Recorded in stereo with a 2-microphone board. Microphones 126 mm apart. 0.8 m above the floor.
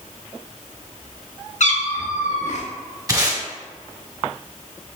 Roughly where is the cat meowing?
Left.